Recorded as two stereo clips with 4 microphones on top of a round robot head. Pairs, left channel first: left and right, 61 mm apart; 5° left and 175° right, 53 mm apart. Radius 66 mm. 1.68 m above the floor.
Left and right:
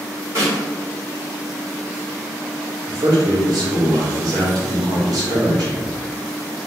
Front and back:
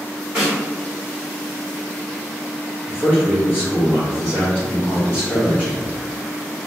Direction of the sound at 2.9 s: 65° right.